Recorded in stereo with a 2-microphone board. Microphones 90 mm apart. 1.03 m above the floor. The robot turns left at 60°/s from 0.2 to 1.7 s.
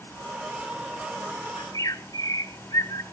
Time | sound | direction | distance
1.6 | a bird | 50° left (ahead or behind) | 0.9 m